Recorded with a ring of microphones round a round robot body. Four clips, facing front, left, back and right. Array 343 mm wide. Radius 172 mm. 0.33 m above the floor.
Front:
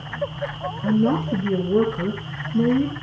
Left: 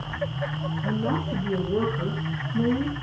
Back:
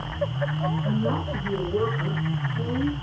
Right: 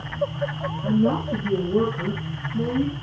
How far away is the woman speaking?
About 7 m.